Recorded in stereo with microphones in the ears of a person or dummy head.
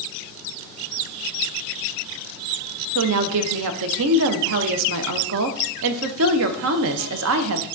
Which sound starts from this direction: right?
A woman speaking, at 3.0 s.